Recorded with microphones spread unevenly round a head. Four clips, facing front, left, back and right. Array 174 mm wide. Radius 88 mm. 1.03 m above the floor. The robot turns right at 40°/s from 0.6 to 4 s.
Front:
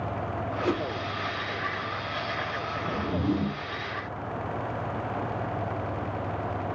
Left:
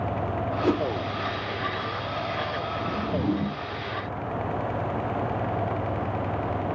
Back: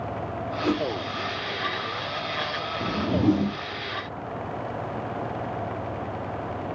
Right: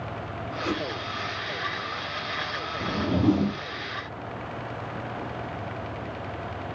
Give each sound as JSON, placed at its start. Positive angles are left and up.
{"t": 0.6, "sound": "a whoosh", "azimuth_deg": 95, "distance_m": 1.0}
{"t": 2.8, "sound": "a whoosh", "azimuth_deg": -160, "distance_m": 0.7}